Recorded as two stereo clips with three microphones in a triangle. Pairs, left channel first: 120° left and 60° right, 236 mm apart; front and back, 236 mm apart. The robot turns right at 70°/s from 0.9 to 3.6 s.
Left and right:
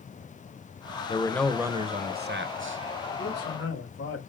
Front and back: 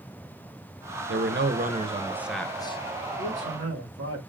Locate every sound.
1.1 s a man speaking: 175° right, 0.7 m; by 2.8 s 55° right, 0.7 m
3.2 s a man speaking: 130° left, 3 m; by 4.2 s 160° left, 3 m